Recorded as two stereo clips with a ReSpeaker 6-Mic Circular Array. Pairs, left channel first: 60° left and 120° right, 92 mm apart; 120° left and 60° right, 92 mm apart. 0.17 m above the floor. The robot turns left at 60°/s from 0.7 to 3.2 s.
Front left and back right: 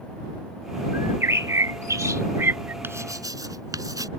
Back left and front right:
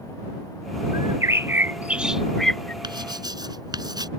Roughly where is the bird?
Ahead right.